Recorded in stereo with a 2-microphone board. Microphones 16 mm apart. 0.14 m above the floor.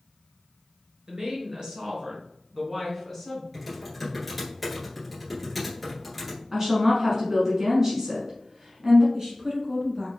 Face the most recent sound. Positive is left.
turn(degrees=-40)  # may be behind; listen again after turning